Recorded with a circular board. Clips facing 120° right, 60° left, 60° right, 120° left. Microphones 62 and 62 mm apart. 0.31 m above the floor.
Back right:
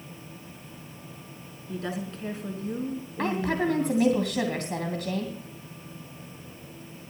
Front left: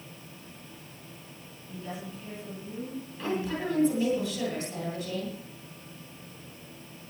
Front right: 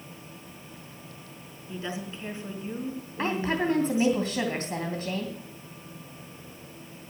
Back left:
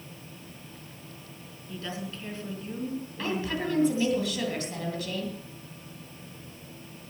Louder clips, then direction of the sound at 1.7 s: Back right 6 dB, front right 2 dB; 130° right.